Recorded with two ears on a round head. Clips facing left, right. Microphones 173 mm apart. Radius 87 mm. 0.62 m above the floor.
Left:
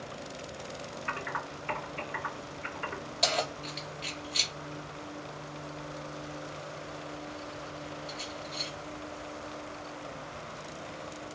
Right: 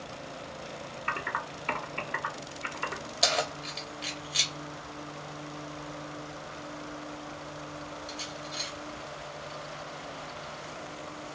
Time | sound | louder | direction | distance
1.1 | typing on a keyboard | right 2 dB | 60° right (ahead or behind) | 1.7 m
3.2 | keys jangling | right 1 dB | 5° right (ahead or behind) | 0.6 m